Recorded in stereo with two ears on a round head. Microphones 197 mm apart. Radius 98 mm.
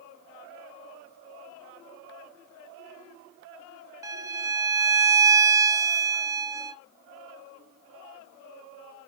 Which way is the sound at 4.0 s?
15° right (ahead or behind).